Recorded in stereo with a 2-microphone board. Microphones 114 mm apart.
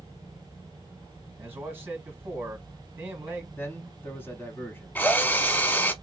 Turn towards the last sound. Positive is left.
turn(degrees=15)  # may be behind; listen again after turning